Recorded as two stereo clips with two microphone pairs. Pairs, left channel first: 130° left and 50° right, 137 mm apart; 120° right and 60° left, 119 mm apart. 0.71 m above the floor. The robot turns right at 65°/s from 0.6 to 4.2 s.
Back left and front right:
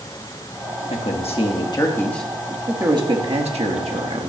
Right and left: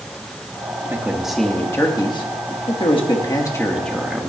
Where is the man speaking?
125° left, 1.3 m; by 4.3 s 20° right, 1.3 m.